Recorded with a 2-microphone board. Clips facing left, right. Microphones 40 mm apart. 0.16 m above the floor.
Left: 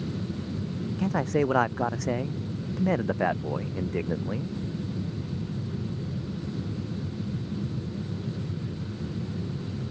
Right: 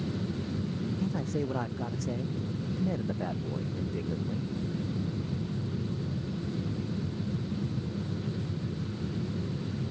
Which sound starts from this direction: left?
A man speaking, at 1.0 s.